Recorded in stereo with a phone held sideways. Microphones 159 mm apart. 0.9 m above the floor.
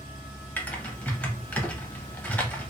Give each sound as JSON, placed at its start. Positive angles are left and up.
{"t": 0.6, "sound": "typing on a keyboard", "side_deg": 10, "distance_m": 0.6}